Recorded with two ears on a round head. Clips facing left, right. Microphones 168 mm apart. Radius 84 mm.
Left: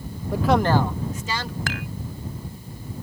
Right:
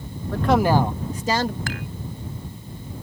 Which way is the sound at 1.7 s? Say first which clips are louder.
Even; 60° left (ahead or behind).